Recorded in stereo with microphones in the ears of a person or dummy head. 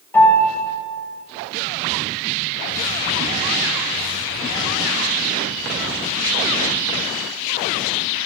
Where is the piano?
15° left (ahead or behind), 6.5 m.